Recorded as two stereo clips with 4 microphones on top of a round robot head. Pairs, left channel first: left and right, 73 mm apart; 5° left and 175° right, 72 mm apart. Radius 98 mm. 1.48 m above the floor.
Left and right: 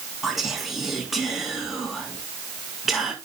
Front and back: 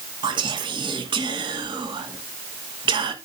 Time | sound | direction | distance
0.2 | whispering | 175° right | 1.2 m